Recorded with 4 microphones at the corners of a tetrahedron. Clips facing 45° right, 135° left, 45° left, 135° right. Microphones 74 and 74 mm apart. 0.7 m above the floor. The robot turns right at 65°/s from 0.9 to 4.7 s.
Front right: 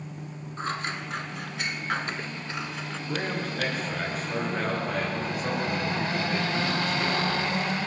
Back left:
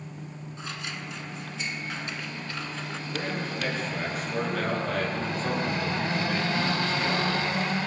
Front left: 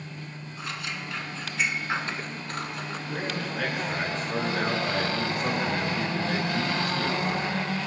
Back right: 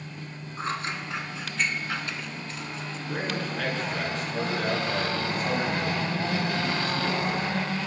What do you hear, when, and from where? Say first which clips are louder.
0.6 s scissors: front right 7 dB, back right 5 dB; 85° right, 1.3 m; by 3.0 s 50° left, 1.3 m
3.1 s a man speaking: front right 2 dB, back right 2 dB; 75° right, 9.5 m; by 7.8 s 30° left, 9.5 m